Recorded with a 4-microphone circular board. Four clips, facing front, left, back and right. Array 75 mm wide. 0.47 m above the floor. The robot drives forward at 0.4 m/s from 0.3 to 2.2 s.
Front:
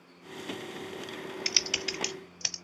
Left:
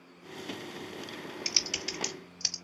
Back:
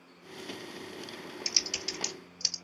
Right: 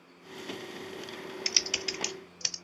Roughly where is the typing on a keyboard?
Ahead.